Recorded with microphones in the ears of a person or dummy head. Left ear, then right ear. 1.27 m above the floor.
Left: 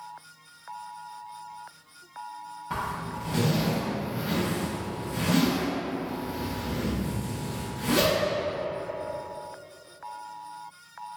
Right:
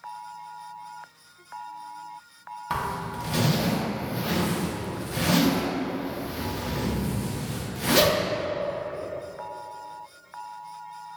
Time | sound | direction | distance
2.7 | a zipper | 30° right (ahead or behind) | 0.8 m